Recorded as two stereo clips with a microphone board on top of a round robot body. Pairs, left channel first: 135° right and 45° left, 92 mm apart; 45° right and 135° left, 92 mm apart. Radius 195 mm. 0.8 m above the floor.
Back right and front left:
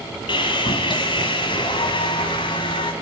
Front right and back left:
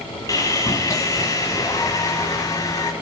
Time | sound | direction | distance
0.3 | sawing | 100° right | 1.0 m